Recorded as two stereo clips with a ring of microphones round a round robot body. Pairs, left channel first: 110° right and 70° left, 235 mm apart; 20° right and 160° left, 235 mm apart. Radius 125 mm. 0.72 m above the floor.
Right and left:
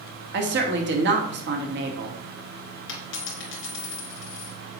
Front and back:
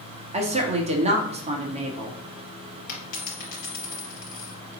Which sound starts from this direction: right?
A dropped coin, at 2.9 s.